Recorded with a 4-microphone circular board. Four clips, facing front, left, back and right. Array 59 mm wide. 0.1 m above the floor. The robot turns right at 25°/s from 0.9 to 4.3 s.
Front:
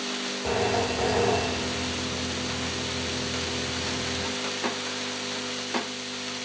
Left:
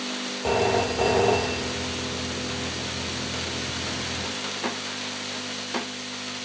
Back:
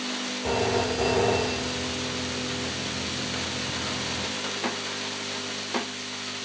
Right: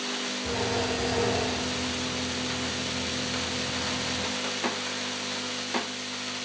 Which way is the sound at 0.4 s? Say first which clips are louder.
Left 7 dB, even; 90° left.